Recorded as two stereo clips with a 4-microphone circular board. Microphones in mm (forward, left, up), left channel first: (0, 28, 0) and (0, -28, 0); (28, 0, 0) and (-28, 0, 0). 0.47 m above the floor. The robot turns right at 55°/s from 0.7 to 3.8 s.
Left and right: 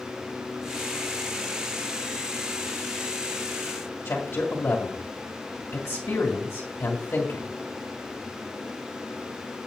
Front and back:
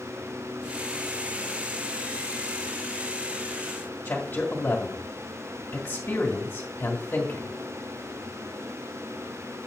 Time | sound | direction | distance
4.0 | a man speaking | 45° left | 1.9 m